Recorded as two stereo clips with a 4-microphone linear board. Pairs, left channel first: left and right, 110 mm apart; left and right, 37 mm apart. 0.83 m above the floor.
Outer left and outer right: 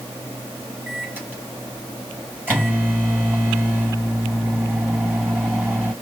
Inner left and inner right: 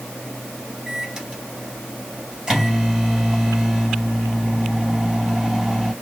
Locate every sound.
0.9 s a microwave: 20° right (ahead or behind), 4.5 m